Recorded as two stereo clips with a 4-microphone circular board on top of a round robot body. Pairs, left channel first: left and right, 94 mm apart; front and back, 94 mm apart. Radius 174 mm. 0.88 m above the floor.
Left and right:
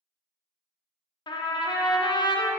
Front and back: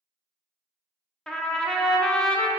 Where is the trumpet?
80° left, 0.5 m.